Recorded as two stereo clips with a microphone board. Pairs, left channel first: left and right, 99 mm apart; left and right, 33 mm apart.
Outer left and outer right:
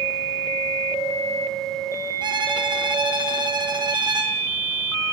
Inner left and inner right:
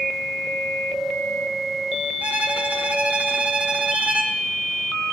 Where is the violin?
50° right (ahead or behind), 0.8 m.